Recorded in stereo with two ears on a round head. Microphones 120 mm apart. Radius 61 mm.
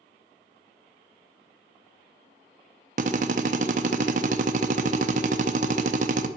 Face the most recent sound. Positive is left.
turn(degrees=-60)  # may be behind; listen again after turning